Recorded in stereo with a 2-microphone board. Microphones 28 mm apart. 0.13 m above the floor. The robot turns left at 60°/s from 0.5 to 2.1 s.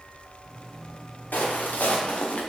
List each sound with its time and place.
1.3 s footsteps: 85° left, 2.5 m; by 2.4 s 55° left (ahead or behind), 1.6 m